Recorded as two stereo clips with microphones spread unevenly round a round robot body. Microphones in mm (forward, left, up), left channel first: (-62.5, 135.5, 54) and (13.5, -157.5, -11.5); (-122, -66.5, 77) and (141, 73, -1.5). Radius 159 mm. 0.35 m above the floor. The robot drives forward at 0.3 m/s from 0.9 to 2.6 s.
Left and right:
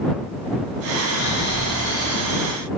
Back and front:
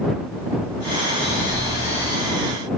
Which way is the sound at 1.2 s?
120° left.